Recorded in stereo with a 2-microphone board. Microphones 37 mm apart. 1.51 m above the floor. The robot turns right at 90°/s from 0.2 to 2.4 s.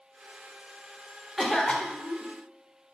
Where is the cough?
5° right, 0.5 m; by 2.3 s 75° left, 0.5 m.